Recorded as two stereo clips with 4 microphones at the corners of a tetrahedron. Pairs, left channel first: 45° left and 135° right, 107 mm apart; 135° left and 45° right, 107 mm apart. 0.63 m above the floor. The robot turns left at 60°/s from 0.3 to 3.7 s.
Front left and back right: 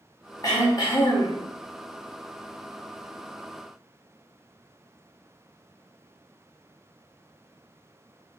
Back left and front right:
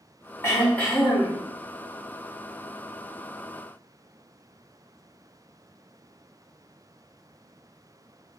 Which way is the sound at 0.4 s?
85° left.